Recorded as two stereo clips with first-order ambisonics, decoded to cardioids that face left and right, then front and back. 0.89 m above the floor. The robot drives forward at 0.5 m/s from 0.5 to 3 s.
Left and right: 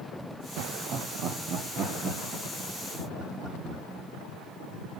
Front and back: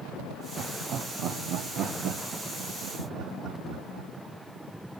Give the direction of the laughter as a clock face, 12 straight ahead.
4 o'clock.